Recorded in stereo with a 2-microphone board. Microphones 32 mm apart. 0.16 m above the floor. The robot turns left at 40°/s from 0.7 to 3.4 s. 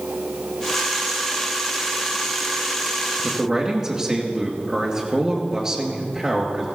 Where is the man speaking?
10° right (ahead or behind), 3 m; by 6.7 s 20° right (ahead or behind), 3 m.